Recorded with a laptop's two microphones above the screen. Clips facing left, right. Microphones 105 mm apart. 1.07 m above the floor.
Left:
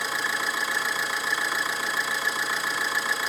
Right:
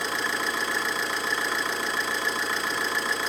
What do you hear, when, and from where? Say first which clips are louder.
0.0 s an engine running: even; 5° left (ahead or behind), 0.9 m